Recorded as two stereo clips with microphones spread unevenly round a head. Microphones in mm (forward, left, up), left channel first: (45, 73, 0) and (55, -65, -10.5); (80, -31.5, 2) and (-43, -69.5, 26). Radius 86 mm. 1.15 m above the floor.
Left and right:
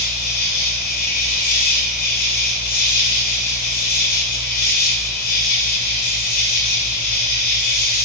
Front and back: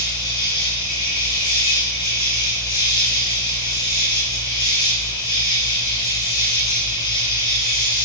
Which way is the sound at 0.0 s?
85° left.